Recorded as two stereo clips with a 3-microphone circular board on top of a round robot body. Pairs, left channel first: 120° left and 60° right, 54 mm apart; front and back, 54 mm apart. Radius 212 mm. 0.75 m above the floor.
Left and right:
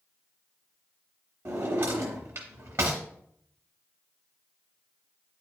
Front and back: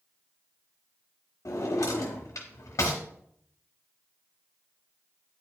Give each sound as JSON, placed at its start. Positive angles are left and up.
{"t": 1.4, "sound": "a drawer", "azimuth_deg": -25, "distance_m": 0.8}